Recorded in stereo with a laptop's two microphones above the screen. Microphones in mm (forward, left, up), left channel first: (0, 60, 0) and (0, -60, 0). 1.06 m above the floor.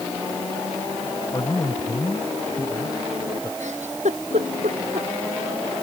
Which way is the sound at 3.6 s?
80° right.